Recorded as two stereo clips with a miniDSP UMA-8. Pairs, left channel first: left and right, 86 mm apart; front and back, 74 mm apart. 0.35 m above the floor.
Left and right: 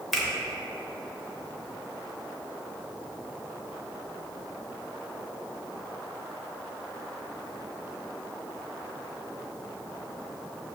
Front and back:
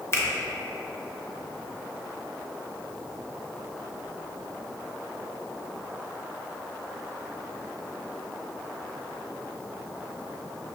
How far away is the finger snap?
About 0.7 m.